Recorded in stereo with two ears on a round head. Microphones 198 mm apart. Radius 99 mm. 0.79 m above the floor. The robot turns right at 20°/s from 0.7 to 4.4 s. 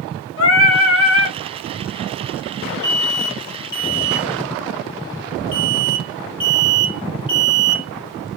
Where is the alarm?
20° right (ahead or behind), 0.9 m; by 7.8 s 5° right (ahead or behind), 0.9 m.